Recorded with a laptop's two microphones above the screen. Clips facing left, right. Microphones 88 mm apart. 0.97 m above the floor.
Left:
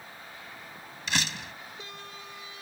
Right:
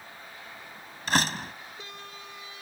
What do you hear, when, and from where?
1.1 s a door slam: 45° right (ahead or behind)